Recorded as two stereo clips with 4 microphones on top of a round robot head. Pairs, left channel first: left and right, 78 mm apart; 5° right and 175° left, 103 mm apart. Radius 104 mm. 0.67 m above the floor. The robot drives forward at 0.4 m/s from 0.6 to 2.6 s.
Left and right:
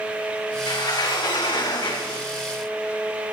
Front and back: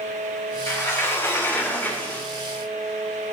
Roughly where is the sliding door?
Ahead left.